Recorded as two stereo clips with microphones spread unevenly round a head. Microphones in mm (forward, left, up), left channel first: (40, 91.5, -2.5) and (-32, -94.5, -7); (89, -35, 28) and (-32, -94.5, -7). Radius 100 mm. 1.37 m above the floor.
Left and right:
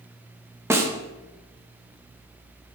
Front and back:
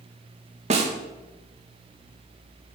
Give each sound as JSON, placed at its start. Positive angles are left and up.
{"t": 0.7, "sound": "a snare drum", "azimuth_deg": 170, "distance_m": 1.0}